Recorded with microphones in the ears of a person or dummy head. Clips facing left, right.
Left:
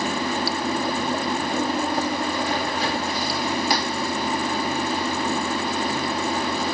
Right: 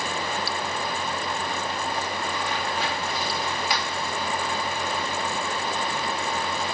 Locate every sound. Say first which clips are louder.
0.0 s running water: left 5 dB; 40° left (ahead or behind)